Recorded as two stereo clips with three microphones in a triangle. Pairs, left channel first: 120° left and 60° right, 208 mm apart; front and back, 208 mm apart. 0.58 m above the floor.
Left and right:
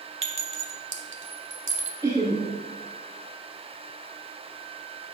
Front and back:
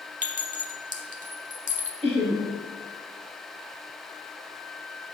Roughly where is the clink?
Ahead right.